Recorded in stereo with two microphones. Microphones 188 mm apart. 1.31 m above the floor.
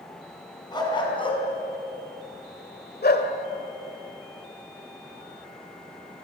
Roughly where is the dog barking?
Left.